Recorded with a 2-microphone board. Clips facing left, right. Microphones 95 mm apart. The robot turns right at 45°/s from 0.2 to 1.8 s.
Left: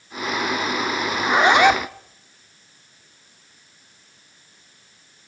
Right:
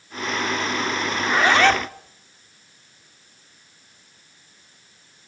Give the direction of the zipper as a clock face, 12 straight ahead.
7 o'clock.